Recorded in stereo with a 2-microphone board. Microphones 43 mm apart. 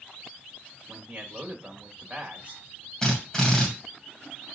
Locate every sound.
0.9 s a man speaking: 25° right (ahead or behind), 2 m
3.0 s a drill: 15° left (ahead or behind), 2.5 m